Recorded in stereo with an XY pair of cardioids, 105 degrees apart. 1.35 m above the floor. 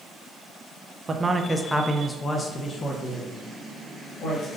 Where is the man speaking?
30° right, 0.6 m; by 4.5 s 60° left, 1.8 m.